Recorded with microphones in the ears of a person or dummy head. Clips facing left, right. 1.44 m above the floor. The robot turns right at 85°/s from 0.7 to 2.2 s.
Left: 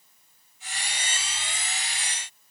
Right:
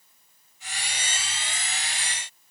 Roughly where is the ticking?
No ticking in this recording.